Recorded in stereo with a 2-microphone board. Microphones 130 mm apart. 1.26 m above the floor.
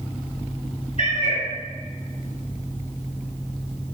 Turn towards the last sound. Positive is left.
turn(degrees=55)  # may be behind; listen again after turning